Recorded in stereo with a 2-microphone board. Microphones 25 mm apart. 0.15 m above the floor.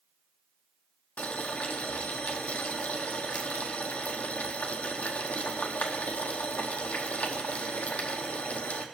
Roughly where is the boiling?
Left.